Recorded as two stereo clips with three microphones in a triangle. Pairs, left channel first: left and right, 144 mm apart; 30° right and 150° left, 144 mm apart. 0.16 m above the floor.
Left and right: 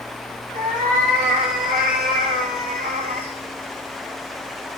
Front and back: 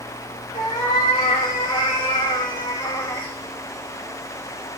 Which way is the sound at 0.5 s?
85° right.